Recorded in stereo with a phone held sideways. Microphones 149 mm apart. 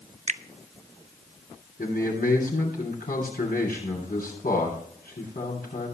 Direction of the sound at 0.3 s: 50° right (ahead or behind).